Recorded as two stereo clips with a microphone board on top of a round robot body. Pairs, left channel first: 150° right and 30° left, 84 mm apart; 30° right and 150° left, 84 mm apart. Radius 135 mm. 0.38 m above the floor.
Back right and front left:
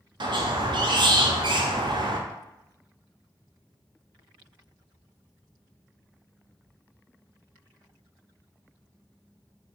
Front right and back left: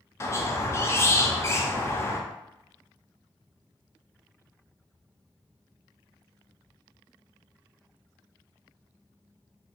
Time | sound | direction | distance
0.2 | a squeak | 25° left | 0.6 m